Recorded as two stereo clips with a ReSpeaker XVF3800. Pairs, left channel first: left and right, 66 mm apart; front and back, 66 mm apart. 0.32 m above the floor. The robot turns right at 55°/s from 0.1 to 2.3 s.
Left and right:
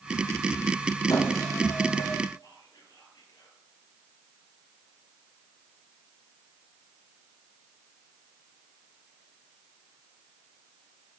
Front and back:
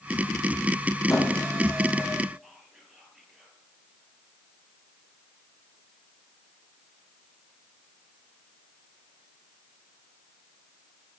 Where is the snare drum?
No snare drum in this recording.